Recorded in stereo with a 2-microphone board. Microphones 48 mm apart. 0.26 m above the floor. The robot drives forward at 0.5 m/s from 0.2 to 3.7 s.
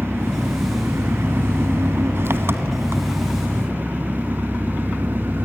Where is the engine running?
50° right (ahead or behind), 1.7 m; by 5.4 s 45° right (ahead or behind), 1.8 m.